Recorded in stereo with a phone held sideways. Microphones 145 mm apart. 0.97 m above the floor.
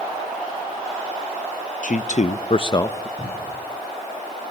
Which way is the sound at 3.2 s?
5° right (ahead or behind).